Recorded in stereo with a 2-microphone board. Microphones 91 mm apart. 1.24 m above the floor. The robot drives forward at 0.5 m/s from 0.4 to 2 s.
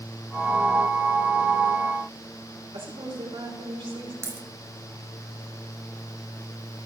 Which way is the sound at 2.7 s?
75° right (ahead or behind).